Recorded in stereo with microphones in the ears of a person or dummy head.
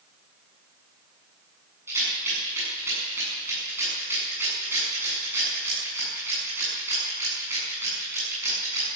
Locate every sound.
1.9 s a rattle: 20° right (ahead or behind), 8 m